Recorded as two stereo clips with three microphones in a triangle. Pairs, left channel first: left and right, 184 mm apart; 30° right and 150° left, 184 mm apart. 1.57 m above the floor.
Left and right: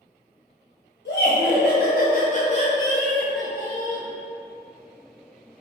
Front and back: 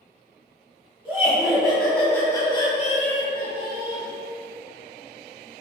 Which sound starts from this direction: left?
Laughter, at 1.1 s.